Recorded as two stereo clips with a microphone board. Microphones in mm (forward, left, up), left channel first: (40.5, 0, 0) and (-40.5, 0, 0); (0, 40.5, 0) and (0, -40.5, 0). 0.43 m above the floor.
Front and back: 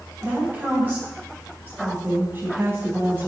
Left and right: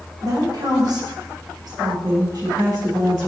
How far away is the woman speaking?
About 3 m.